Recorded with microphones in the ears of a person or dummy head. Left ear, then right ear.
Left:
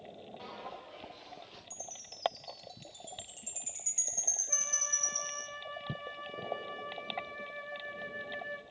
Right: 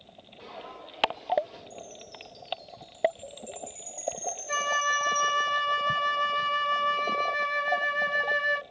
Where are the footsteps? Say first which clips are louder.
Right 4 dB; 5° left (ahead or behind), 8.5 m; by 1.6 s centre (ahead or behind), 8.5 m.